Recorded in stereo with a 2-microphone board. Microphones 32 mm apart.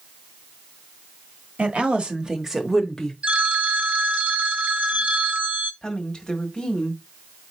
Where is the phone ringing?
40° right (ahead or behind), 0.9 m.